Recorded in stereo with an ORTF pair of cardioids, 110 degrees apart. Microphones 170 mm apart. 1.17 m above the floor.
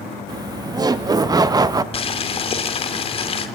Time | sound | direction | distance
0.3 | laughter | 25° right | 2.5 m
1.9 | boiling | 35° left | 3 m